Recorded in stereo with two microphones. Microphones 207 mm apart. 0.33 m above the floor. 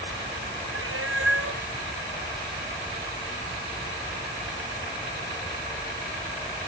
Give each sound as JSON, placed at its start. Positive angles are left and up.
{"t": 0.7, "sound": "a cat meowing", "side_deg": -90}